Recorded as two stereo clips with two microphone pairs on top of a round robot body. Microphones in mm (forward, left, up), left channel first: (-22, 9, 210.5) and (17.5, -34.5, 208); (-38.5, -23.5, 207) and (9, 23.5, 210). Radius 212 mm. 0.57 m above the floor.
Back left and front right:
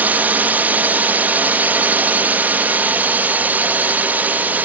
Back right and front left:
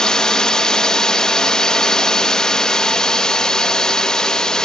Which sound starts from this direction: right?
A drone, at 0.0 s.